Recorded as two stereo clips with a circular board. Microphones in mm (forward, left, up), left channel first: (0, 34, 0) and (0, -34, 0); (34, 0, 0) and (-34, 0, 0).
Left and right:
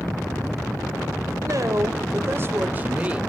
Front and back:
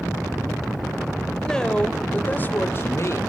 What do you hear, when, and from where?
1.4 s a woman speaking: 80° right, 1.2 m; by 3.2 s 20° right, 1.0 m